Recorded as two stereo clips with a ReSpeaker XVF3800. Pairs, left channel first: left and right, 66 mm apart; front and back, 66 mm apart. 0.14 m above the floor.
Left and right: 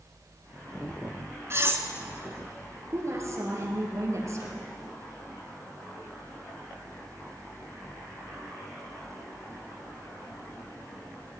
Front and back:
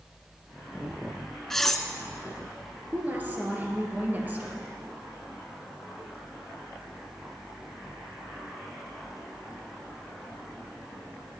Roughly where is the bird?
I don't hear a bird.